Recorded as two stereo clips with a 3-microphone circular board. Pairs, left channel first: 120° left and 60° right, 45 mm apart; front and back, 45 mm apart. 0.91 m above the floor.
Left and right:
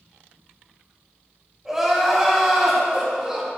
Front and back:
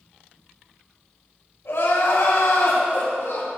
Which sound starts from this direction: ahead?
Crying, at 1.6 s.